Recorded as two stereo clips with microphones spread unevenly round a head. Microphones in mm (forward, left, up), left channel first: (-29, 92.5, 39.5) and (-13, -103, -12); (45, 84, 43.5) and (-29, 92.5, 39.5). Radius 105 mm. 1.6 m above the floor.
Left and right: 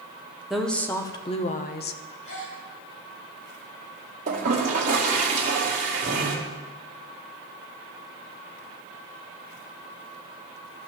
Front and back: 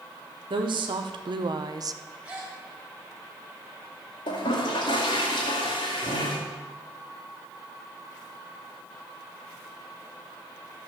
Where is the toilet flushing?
25° right, 2.5 m.